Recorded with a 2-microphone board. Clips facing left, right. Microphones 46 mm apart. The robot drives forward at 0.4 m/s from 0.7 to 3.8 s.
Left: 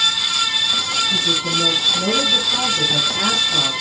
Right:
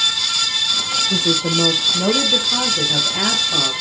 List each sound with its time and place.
1.1 s a woman speaking: 60° right (ahead or behind), 0.5 m; by 3.8 s 20° right (ahead or behind), 1.4 m